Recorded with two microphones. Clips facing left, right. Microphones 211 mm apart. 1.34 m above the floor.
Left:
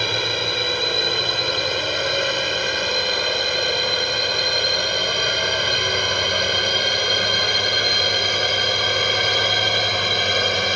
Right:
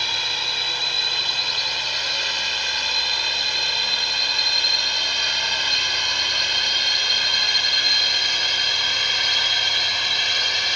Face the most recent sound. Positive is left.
turn(degrees=60)  # may be behind; listen again after turning